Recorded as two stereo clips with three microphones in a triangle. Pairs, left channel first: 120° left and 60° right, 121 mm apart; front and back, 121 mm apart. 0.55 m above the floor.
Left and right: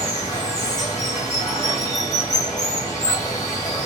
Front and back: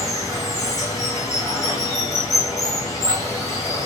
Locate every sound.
0.0 s running water: 60° left, 2 m